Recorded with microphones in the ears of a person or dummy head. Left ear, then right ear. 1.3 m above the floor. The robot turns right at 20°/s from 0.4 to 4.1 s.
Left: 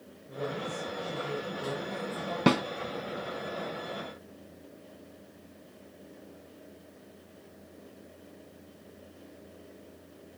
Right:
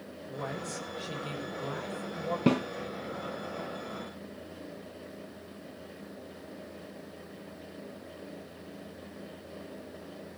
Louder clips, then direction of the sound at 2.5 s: Left 3 dB; 30° left (ahead or behind).